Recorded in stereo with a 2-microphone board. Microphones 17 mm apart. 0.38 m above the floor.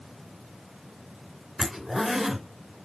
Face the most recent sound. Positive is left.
turn(degrees=-25)  # may be behind; listen again after turning